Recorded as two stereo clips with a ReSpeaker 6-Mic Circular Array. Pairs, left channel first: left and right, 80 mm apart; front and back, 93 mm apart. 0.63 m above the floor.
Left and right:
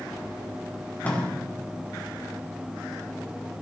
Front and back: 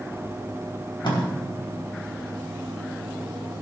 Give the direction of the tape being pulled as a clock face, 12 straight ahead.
11 o'clock.